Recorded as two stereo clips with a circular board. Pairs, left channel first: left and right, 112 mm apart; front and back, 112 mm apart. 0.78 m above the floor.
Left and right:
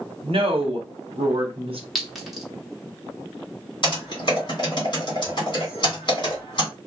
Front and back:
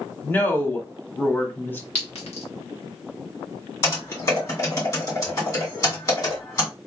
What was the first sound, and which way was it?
A woman speaking, 70° right.